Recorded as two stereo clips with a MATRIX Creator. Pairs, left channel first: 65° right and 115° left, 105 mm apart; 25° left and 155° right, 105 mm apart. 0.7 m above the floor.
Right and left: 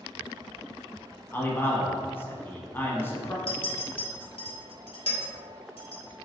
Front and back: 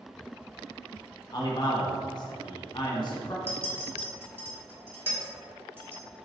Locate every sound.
1.3 s a man speaking: 5° right, 0.8 m
3.5 s a clink: 90° right, 1.1 m